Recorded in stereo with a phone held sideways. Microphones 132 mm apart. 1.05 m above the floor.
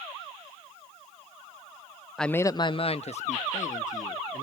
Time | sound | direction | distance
2.2 | a man speaking | centre (ahead or behind) | 0.5 m